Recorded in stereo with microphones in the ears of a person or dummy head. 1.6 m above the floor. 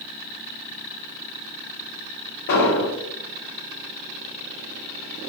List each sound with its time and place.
2.5 s an explosion: 50° left (ahead or behind), 0.7 m